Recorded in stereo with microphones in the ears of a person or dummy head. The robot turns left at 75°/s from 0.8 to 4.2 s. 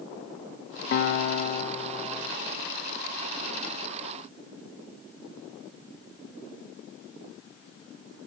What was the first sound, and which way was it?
A guitar, 100° left.